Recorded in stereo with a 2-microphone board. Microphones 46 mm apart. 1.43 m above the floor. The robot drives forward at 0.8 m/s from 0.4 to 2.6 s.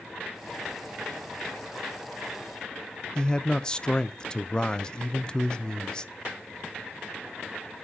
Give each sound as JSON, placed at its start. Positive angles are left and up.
{"t": 3.1, "sound": "a man speaking", "side_deg": 20, "distance_m": 0.5}